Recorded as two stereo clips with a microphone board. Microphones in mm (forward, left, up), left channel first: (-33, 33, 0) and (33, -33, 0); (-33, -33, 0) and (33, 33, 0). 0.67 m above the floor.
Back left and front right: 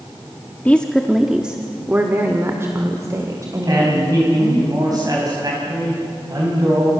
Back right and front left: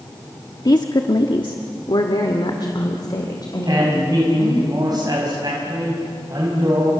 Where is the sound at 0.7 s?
160° right, 1.2 m; by 4.6 s 90° right, 4 m.